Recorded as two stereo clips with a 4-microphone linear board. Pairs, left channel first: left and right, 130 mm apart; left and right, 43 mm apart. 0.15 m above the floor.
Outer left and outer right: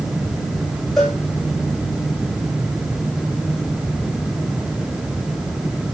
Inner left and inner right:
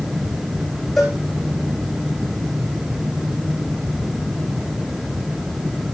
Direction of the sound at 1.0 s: Centre (ahead or behind).